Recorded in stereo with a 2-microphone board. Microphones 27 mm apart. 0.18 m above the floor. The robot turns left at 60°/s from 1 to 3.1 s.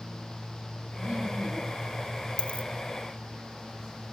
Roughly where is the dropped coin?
Left.